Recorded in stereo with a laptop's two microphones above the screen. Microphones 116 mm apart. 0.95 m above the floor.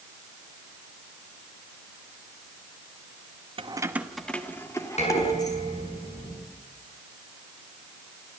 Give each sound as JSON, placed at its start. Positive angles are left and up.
{"t": 3.6, "sound": "keys jangling", "side_deg": -45, "distance_m": 0.8}
{"t": 5.0, "sound": "dishes clattering", "side_deg": 65, "distance_m": 7.0}